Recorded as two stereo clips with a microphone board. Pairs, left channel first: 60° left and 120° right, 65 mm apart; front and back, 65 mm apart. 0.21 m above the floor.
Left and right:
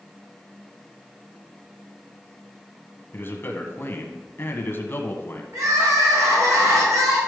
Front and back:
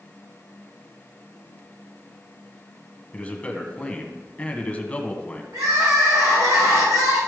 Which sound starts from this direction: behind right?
Crying, at 5.5 s.